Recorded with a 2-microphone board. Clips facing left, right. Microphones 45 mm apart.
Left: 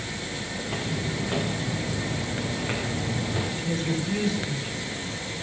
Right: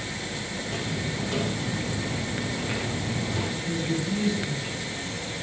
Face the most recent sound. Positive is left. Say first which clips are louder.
# even
turn(degrees=60)  # may be behind; listen again after turning